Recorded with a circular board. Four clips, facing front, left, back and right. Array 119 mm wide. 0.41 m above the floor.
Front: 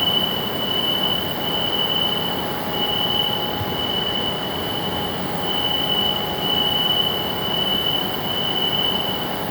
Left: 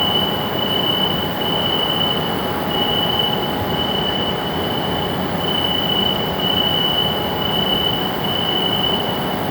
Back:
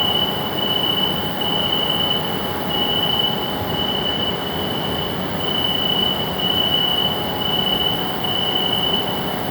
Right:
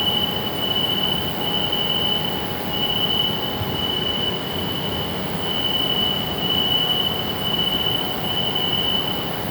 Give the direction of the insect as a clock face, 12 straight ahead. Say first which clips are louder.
Left 5 dB, back 2 dB; 1 o'clock.